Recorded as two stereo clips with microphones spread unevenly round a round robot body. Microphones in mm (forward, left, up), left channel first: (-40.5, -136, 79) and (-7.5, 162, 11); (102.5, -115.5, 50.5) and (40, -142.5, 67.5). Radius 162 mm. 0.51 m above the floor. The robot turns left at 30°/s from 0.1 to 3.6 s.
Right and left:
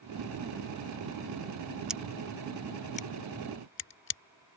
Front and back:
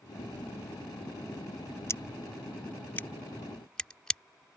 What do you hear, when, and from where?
1.9 s scissors: 10° left; by 4.2 s 45° right